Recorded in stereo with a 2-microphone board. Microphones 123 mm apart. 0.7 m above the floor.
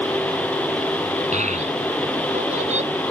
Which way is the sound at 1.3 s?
85° right.